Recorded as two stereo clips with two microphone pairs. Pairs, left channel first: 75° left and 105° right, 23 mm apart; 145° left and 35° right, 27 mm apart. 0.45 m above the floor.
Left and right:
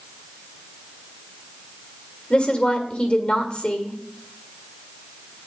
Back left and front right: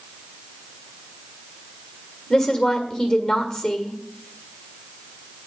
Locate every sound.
2.3 s a woman speaking: 80° left, 1.7 m